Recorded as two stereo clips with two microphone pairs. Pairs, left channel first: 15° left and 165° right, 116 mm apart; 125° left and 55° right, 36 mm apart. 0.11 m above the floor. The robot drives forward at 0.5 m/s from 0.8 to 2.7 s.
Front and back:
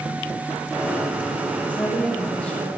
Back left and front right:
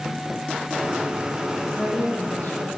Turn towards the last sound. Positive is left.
turn(degrees=95)